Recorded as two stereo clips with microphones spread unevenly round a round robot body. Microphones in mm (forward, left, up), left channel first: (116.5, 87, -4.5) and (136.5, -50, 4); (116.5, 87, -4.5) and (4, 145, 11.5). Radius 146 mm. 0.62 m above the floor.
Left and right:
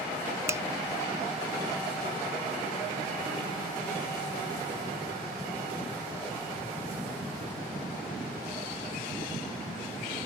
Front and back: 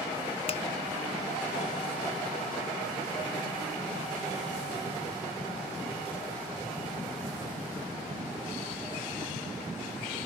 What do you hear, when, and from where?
0.5 s a finger snap: 10° right